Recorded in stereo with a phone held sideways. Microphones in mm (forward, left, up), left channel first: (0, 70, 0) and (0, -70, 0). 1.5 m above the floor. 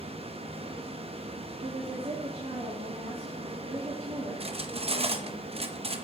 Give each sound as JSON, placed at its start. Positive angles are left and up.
{"t": 0.0, "sound": "a fan", "side_deg": -45, "distance_m": 1.0}
{"t": 1.6, "sound": "a woman speaking", "side_deg": -45, "distance_m": 2.5}
{"t": 4.4, "sound": "cutlery clinking", "side_deg": -45, "distance_m": 0.9}